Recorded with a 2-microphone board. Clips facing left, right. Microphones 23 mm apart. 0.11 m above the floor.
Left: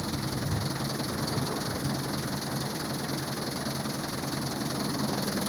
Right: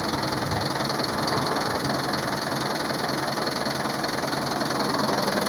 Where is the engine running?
75° right (ahead or behind).